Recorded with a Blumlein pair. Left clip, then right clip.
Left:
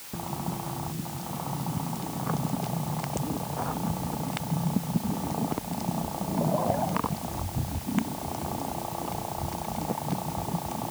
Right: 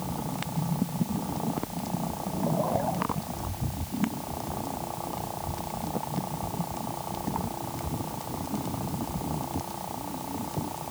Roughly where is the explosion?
I don't hear an explosion.